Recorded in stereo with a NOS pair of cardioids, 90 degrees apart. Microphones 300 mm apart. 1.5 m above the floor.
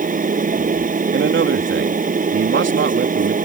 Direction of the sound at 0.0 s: 25° right.